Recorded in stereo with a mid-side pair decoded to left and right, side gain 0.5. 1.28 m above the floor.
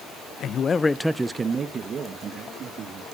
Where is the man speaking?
60° left, 0.8 m; by 3.1 s 55° right, 2.5 m.